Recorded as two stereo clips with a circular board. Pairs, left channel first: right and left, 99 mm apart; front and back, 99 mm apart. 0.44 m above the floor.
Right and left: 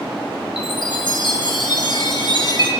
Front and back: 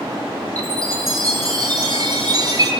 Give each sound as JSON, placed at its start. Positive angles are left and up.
{"t": 0.6, "sound": "a chime", "azimuth_deg": -130, "distance_m": 8.0}